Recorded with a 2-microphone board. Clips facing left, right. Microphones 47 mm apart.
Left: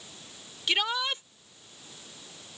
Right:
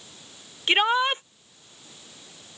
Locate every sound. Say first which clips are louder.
0.7 s a shout: right 7 dB; 40° right (ahead or behind)